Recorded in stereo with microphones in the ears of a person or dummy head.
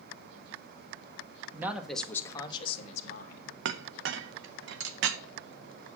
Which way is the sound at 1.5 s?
10° right (ahead or behind).